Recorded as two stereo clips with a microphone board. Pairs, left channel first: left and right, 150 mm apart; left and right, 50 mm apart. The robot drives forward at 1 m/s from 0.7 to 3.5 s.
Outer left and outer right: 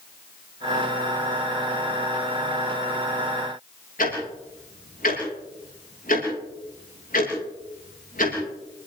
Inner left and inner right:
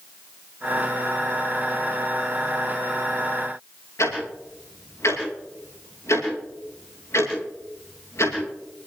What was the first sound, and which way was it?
Ticking, 75° left (ahead or behind).